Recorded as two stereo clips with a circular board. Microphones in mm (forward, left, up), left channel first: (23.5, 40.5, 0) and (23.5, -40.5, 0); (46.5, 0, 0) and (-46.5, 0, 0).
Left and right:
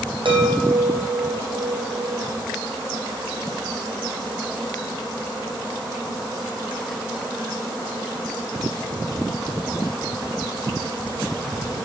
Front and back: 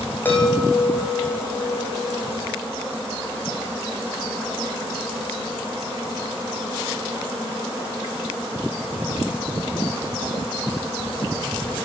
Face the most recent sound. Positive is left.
turn(degrees=-70)